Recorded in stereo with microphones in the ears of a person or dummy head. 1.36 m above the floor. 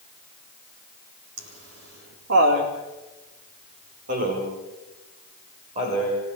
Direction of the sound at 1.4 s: 75° right (ahead or behind).